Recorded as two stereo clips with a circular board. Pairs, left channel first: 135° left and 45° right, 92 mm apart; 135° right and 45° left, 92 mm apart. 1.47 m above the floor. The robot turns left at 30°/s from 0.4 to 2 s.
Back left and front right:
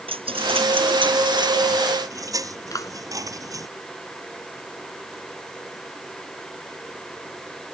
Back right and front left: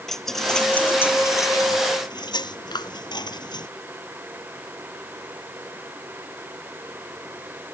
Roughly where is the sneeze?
I don't hear a sneeze.